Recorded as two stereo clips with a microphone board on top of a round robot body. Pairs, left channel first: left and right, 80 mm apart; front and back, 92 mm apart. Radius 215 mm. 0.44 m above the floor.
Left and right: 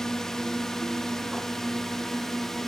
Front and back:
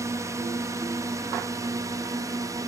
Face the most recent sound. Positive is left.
turn(degrees=175)